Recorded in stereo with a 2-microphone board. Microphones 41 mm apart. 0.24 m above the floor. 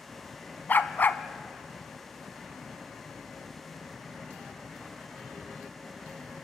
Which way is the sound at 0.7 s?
55° left (ahead or behind).